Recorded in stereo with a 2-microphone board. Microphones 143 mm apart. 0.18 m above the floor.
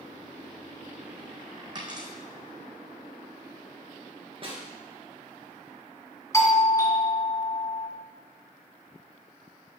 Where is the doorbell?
20° left (ahead or behind), 1.7 m.